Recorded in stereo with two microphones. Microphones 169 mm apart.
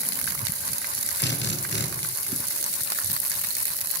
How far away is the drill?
About 2.5 m.